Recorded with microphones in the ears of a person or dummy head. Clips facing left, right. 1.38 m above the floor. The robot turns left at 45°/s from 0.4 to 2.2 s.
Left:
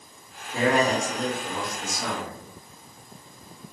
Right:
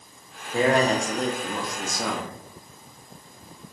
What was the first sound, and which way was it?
A man speaking, 20° right.